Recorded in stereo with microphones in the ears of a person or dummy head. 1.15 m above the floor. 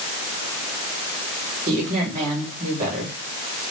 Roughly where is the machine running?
No machine running in this recording.